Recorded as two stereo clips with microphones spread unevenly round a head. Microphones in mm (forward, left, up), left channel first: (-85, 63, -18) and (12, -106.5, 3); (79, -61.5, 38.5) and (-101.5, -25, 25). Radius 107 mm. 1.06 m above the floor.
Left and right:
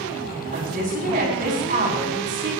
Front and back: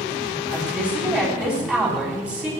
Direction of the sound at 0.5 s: 105° right.